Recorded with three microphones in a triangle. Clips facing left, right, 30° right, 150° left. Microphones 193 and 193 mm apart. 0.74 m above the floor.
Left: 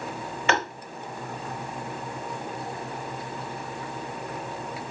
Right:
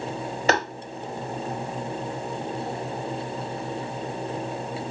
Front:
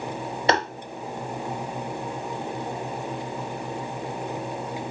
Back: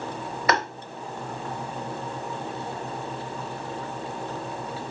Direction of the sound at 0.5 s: 75° right.